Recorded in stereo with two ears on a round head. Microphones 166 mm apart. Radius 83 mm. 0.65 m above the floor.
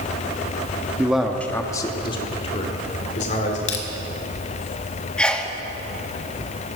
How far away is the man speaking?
About 0.9 m.